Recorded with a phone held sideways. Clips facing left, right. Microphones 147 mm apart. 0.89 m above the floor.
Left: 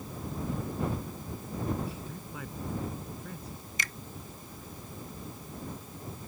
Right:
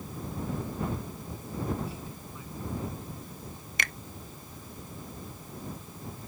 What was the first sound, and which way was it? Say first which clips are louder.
A man speaking: left 2 dB; 75° left (ahead or behind).